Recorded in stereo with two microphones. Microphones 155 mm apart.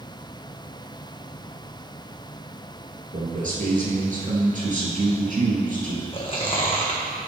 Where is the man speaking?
60° right (ahead or behind), 3 m.